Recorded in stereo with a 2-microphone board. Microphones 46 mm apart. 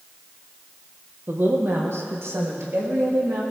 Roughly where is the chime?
No chime in this recording.